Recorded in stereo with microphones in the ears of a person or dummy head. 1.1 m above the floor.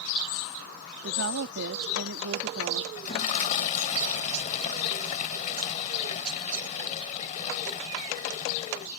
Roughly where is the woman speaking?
Right.